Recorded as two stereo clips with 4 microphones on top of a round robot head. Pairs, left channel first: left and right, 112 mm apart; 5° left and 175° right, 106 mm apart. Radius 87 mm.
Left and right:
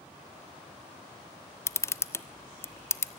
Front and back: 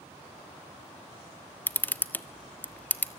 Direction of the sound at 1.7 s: 55° left.